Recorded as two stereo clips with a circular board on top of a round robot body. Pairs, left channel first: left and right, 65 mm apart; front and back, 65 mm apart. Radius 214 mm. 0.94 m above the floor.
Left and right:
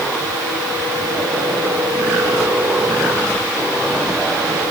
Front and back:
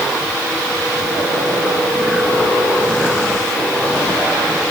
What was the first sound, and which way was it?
Only background noise.